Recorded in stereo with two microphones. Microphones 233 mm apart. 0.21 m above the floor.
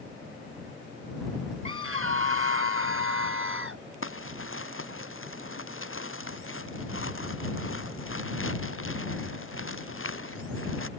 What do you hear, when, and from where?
1.6 s a scream: 65° right (ahead or behind)
4.0 s crumpling: 60° left (ahead or behind)